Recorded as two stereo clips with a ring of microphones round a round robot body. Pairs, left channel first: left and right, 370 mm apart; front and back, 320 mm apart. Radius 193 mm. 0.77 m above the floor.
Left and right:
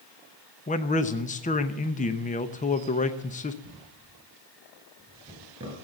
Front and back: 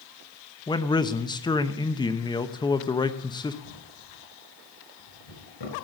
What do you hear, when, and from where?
0.7 s a man speaking: 55° left, 0.9 m
3.6 s a drawer: 15° right, 5 m